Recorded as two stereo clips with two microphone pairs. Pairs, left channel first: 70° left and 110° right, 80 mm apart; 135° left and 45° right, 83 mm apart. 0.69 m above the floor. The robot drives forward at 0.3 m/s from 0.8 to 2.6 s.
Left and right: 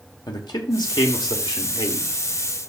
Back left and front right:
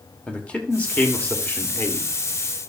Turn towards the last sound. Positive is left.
turn(degrees=80)